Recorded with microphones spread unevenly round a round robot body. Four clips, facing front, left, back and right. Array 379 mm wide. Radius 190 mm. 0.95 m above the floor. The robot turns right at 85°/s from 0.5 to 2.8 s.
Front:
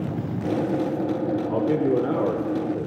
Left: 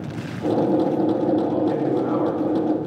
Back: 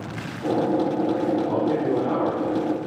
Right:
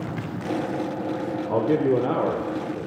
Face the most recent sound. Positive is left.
turn(degrees=10)